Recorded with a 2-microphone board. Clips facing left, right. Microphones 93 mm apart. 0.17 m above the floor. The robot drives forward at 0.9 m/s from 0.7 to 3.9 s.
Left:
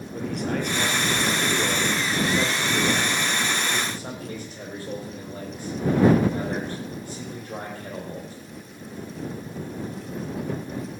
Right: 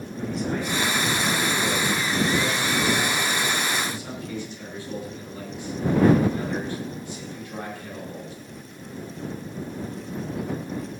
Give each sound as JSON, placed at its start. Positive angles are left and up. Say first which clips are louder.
{"t": 0.1, "sound": "a man speaking", "louder": "left 1 dB", "side_deg": 65, "distance_m": 4.0}